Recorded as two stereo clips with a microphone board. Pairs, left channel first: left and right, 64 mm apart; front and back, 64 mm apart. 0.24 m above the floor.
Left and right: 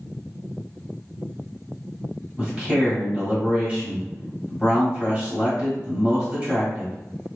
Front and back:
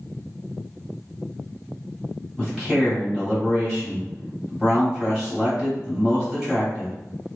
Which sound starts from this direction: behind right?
A man speaking, at 2.4 s.